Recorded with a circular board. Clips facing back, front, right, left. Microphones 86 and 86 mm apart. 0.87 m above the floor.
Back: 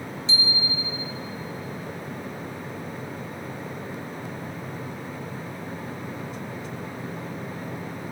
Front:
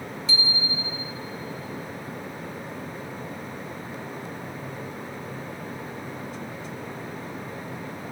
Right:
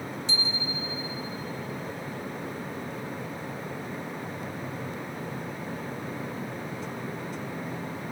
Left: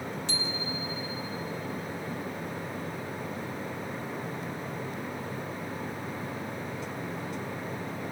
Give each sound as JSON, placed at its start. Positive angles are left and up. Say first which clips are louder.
{"t": 0.3, "sound": "a bicycle bell", "louder": "back 1 dB, right 1 dB", "azimuth_deg": 120, "distance_m": 2.0}